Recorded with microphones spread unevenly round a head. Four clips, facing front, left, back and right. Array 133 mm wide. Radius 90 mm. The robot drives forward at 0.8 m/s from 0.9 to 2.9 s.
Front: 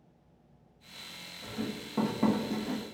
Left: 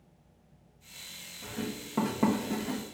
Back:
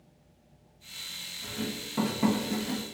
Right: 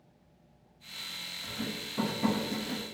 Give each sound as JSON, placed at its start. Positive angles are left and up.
{"t": 1.4, "sound": "writing", "azimuth_deg": 45, "distance_m": 1.7}